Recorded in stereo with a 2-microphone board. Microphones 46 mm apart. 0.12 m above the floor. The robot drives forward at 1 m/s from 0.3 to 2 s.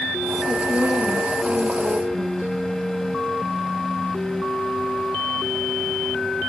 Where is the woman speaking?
45° right (ahead or behind), 5.5 m; by 2.5 s 35° right (ahead or behind), 6.5 m.